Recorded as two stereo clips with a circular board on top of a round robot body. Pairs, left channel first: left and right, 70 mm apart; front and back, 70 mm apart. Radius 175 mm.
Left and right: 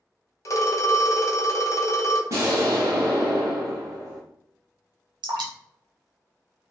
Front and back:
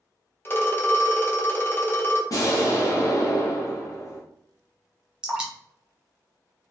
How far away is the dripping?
About 0.7 m.